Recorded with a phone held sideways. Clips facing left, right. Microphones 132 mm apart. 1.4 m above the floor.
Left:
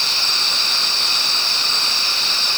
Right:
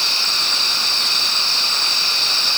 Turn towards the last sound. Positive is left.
No sound to turn to.